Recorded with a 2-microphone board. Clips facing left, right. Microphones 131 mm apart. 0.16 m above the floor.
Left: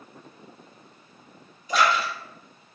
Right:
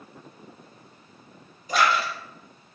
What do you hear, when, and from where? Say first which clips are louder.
1.7 s a splash: even; 40° right (ahead or behind), 1.4 m